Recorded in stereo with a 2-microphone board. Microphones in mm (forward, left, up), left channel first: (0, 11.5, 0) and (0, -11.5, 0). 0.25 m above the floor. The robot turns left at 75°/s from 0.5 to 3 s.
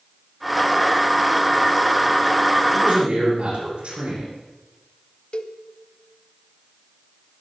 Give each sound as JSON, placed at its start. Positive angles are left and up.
{"t": 2.7, "sound": "a man speaking", "side_deg": -80, "distance_m": 9.0}
{"t": 5.3, "sound": "a cowbell", "side_deg": 40, "distance_m": 0.8}